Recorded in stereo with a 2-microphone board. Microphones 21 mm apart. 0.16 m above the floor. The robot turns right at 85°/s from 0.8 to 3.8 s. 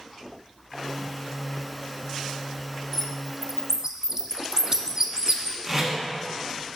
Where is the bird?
10° left (ahead or behind), 0.5 m; by 5.5 s 30° right (ahead or behind), 0.5 m.